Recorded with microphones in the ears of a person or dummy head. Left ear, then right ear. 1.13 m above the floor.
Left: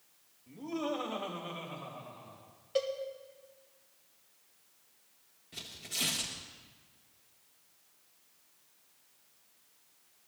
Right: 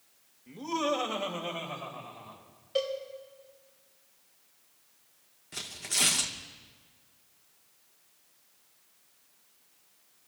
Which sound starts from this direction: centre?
A cowbell, at 2.8 s.